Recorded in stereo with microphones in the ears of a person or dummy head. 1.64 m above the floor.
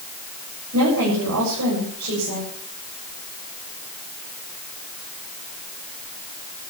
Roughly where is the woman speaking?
Right.